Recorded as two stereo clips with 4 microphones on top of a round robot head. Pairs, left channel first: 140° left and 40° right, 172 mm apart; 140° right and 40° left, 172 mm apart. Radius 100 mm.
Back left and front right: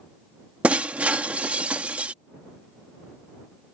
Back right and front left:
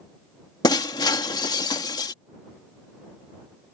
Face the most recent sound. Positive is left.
turn(degrees=-110)